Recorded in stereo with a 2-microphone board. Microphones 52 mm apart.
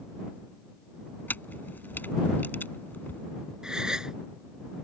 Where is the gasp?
15° right (ahead or behind).